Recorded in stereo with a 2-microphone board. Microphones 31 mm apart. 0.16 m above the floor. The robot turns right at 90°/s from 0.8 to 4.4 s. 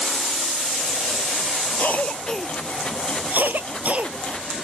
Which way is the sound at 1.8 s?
55° left (ahead or behind).